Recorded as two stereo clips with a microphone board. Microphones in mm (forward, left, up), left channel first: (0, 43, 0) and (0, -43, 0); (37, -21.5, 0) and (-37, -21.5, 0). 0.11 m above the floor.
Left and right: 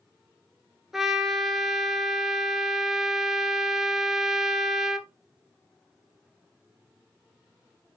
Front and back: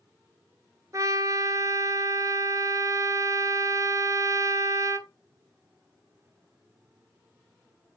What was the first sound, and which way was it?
A trumpet, 175° right.